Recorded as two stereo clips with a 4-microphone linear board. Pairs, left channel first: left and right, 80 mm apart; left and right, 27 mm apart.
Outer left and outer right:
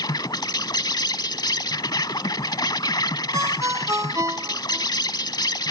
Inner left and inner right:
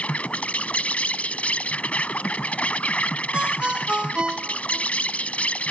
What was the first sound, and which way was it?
An insect, 55° left (ahead or behind).